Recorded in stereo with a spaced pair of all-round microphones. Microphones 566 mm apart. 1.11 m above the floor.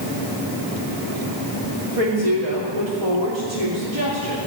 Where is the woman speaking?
80° right, 3 m.